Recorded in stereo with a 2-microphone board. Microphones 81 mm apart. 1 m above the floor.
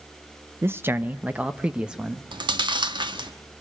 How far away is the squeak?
I don't hear a squeak.